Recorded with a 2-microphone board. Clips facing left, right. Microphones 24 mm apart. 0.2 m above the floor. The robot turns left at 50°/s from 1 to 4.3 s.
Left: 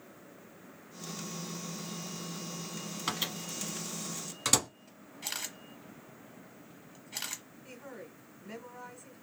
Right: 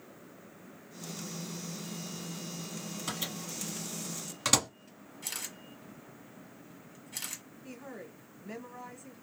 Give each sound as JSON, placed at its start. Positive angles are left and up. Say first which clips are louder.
{"t": 3.1, "sound": "a microwave", "louder": "left 4 dB", "side_deg": 30, "distance_m": 1.1}
{"t": 5.2, "sound": "a camera shutter", "louder": "left 2 dB", "side_deg": 20, "distance_m": 0.9}
{"t": 7.6, "sound": "a woman speaking", "louder": "right 2 dB", "side_deg": -5, "distance_m": 1.3}